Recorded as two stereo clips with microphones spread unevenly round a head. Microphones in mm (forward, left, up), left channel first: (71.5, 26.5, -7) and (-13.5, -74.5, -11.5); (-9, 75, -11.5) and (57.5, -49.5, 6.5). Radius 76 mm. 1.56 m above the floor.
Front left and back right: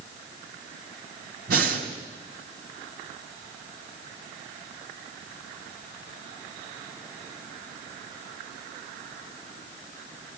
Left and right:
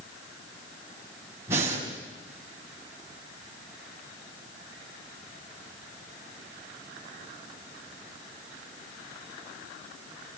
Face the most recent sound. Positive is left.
turn(degrees=-135)